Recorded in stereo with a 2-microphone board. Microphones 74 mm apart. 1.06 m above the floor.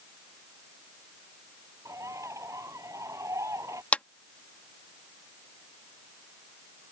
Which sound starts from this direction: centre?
A clap, at 3.9 s.